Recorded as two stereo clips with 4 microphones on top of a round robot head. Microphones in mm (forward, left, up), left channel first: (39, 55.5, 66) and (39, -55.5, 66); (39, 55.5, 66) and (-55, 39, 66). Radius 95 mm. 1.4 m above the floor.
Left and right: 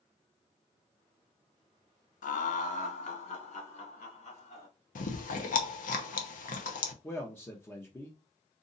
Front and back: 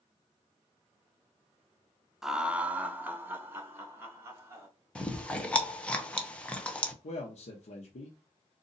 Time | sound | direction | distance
2.2 | laughter | 105° left | 0.7 m
5.0 | chewing | 90° left | 0.9 m
7.0 | a man speaking | 15° left | 1.0 m